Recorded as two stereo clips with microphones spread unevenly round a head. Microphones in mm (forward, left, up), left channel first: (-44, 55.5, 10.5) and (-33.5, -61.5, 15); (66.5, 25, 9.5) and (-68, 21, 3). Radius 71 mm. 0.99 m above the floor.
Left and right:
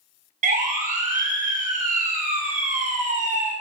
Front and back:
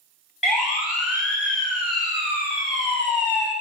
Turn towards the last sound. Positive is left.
turn(degrees=-100)